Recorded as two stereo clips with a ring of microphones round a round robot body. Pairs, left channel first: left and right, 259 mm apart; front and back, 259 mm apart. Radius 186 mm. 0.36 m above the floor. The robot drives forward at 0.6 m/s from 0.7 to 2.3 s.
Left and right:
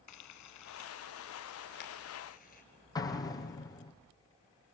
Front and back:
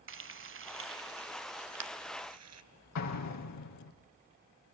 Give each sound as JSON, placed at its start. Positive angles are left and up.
{"t": 0.1, "sound": "frying", "azimuth_deg": 135, "distance_m": 0.9}
{"t": 3.0, "sound": "an explosion", "azimuth_deg": 15, "distance_m": 5.0}